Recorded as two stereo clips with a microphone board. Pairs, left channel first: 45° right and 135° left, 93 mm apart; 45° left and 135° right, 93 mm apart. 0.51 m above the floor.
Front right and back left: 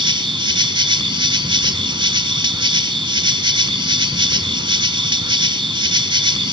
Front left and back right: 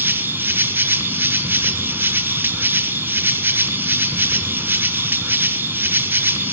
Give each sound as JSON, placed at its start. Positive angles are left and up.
{"t": 0.0, "sound": "an insect", "azimuth_deg": 160, "distance_m": 0.8}